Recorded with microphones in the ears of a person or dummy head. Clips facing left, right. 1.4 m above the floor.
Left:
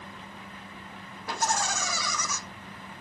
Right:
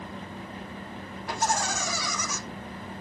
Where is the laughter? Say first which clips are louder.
Right 1 dB; 70° left (ahead or behind), 2.5 m.